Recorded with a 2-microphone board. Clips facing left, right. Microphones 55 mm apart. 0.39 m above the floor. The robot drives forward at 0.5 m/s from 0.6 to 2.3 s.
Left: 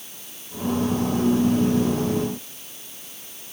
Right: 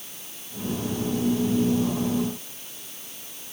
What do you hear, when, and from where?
Only background noise.